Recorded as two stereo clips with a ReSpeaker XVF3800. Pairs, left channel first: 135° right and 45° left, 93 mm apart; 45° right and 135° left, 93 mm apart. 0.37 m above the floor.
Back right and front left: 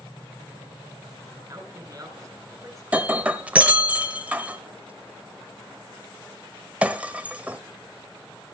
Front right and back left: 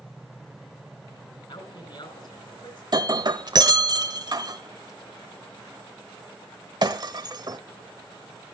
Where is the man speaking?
15° right, 4.5 m.